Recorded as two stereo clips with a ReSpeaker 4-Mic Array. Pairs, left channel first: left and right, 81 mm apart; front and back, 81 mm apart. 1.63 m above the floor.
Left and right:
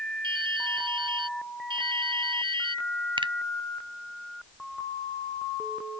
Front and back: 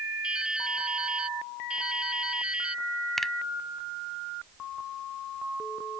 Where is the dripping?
100° right.